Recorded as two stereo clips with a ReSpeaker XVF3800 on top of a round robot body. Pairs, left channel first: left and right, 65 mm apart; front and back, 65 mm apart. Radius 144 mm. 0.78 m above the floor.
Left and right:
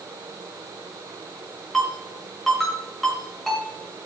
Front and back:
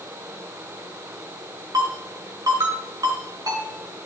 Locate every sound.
1.7 s a ringtone: straight behind, 6 m